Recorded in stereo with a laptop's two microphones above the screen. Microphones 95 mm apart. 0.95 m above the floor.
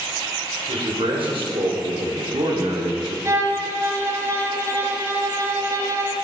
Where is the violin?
35° right (ahead or behind), 1.5 m.